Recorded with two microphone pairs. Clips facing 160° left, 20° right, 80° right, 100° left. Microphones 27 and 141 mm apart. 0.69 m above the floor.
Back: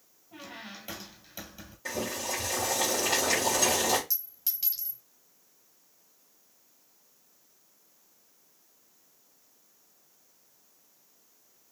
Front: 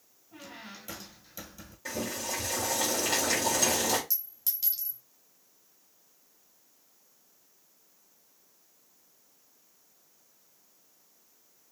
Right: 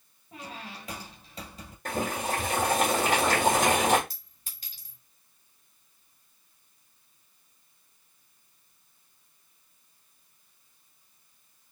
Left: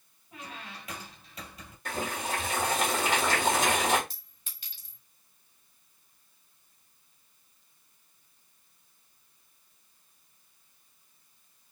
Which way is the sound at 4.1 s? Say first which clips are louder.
Even, right 1 dB; 125° right.